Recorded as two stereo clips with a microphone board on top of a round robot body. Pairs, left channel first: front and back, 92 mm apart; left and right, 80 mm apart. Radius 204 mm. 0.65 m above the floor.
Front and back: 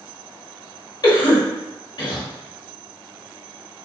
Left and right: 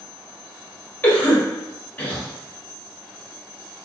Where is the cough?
20° left, 1.5 m.